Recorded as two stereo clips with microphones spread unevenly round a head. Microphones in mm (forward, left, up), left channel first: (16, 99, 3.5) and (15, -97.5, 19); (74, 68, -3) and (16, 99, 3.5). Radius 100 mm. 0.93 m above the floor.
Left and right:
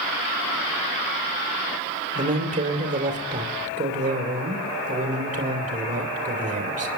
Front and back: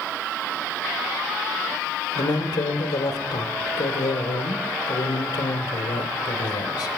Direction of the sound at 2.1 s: 35° right.